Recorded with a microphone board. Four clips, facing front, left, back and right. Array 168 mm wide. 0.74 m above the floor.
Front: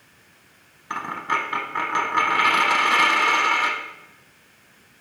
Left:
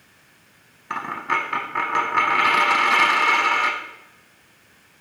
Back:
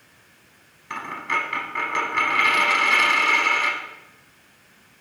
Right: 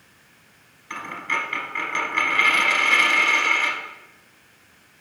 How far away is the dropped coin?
About 0.8 m.